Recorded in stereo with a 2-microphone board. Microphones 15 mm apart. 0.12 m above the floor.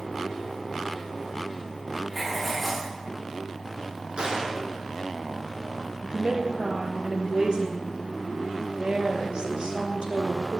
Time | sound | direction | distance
2.1 | writing | centre (ahead or behind) | 7.5 m
4.2 | a gunshot | 60° right (ahead or behind) | 5 m
6.0 | a woman speaking | 65° right (ahead or behind) | 2.5 m